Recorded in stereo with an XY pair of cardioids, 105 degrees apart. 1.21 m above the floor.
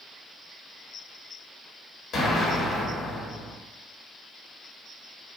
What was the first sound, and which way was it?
An explosion, 55° left.